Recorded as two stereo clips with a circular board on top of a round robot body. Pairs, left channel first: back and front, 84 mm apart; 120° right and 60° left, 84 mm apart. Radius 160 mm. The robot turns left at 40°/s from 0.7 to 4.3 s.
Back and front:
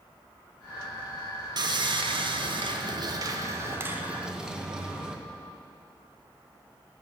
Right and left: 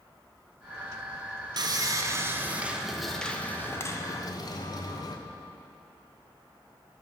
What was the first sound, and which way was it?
Sawing, 30° left.